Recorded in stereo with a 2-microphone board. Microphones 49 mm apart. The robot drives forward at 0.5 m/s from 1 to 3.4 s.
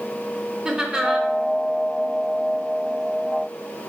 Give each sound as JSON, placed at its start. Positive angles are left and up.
{"t": 0.7, "sound": "laughter", "side_deg": -15, "distance_m": 1.0}